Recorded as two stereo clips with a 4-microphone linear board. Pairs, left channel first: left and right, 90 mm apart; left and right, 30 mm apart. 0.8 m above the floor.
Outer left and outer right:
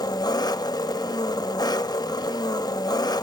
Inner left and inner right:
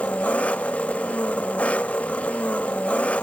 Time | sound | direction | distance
0.0 | an engine running | 45° left (ahead or behind) | 0.7 m